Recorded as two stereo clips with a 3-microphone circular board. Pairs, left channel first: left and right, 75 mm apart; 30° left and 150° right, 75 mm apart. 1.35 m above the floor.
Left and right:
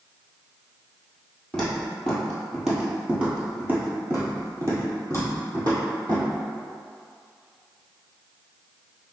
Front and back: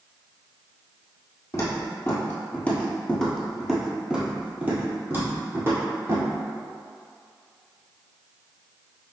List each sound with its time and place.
1.5 s footsteps: 10° left, 1.7 m; by 6.3 s 115° right, 2 m